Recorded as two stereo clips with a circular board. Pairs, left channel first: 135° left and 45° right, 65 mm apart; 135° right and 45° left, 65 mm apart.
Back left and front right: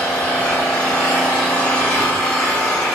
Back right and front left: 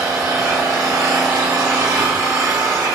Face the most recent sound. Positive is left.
turn(degrees=65)